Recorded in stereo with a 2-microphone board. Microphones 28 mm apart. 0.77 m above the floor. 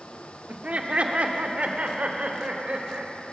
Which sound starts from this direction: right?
Laughter, at 0.5 s.